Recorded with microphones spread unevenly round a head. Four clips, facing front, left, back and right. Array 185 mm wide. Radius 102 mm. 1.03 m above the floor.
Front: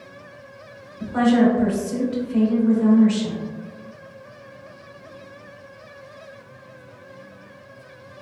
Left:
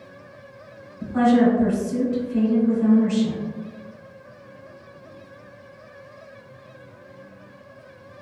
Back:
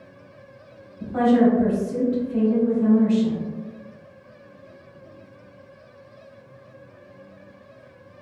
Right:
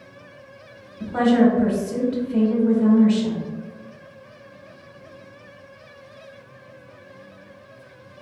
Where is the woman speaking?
60° right, 1.6 m.